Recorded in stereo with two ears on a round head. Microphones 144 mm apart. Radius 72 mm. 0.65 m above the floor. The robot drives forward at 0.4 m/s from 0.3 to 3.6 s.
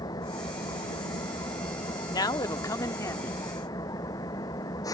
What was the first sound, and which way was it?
An engine running, 25° left (ahead or behind).